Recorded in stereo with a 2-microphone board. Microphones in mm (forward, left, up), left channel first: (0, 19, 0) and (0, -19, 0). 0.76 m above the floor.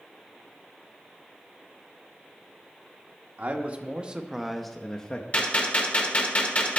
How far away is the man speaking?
About 0.9 m.